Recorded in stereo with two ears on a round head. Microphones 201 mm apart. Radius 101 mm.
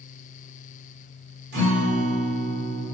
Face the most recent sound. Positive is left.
turn(degrees=-50)  # may be behind; listen again after turning